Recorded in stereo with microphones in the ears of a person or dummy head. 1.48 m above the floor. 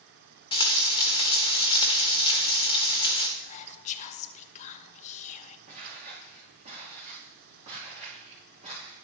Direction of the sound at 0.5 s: 30° left (ahead or behind).